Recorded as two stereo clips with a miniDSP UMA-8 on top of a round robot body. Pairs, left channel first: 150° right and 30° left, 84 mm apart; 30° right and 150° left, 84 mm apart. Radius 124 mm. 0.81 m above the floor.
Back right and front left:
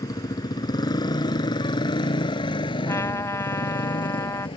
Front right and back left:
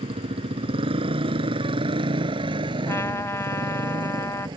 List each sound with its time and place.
0.0 s a motorcycle: 160° left; by 4.6 s 175° right
2.9 s a trumpet: 90° right